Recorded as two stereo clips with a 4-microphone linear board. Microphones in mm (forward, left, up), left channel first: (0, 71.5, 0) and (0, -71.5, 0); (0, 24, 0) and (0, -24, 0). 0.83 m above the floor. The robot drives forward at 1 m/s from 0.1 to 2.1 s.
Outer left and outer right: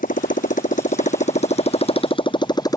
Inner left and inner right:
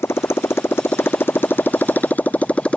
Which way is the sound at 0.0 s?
75° left (ahead or behind).